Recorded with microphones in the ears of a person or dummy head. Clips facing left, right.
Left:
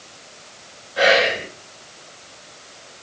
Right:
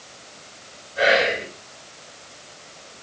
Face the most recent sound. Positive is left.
turn(degrees=85)